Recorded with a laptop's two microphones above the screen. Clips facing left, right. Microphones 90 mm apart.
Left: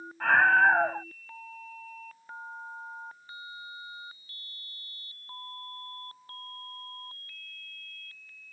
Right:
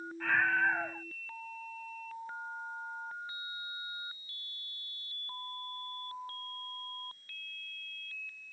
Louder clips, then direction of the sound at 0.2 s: Left 9 dB; 60° left (ahead or behind).